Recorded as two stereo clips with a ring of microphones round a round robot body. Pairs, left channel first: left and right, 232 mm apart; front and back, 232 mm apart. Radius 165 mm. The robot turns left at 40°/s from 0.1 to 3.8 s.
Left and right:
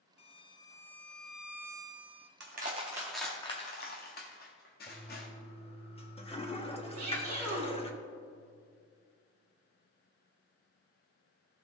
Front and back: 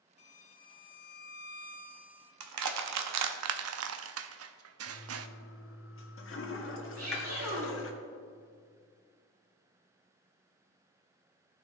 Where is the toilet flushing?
25° left, 1.5 m.